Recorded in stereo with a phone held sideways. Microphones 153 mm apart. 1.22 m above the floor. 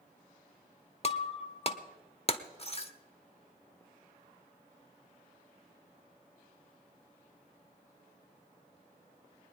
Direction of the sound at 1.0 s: 40° left (ahead or behind).